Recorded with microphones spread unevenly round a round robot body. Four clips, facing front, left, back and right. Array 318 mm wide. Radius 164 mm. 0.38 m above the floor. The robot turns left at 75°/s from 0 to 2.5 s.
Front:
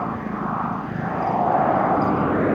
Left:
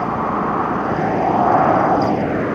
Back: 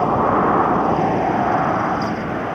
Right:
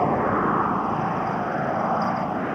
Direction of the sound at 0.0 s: 140° right.